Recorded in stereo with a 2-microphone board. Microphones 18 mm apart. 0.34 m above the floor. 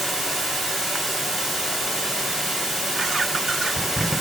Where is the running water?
20° right (ahead or behind), 6.5 m.